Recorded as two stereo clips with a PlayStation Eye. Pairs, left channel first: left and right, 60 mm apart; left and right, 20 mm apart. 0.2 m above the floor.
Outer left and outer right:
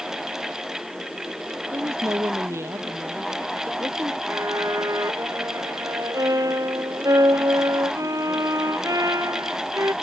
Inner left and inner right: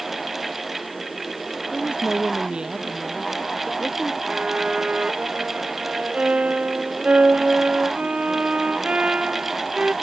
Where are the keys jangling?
I don't hear keys jangling.